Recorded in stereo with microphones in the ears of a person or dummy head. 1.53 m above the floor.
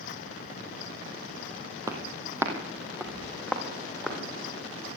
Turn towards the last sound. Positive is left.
turn(degrees=5)  # may be behind; listen again after turning